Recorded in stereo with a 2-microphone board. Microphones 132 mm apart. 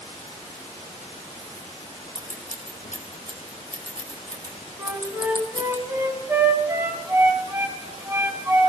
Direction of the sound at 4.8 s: 20° right (ahead or behind).